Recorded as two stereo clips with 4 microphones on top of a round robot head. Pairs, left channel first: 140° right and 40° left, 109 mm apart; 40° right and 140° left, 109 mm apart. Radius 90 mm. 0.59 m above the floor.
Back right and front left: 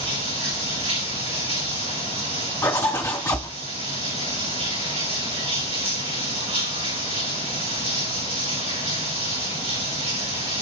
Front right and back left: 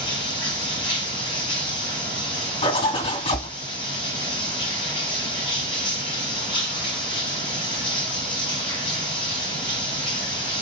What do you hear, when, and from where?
0.0 s running water: 5° left, 5 m
2.6 s a zipper: 70° right, 2.5 m